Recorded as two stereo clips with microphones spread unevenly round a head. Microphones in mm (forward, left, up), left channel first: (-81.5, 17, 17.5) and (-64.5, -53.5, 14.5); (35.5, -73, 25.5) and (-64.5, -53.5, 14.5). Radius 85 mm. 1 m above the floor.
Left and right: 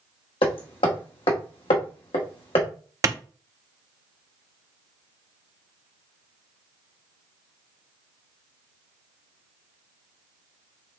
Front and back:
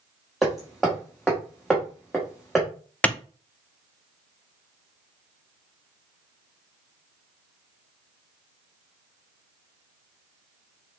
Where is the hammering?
75° left, 1.0 m.